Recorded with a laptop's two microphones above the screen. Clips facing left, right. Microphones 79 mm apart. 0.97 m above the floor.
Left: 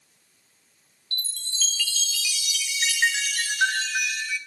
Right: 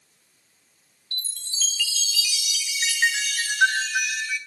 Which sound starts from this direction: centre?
A chime, at 1.1 s.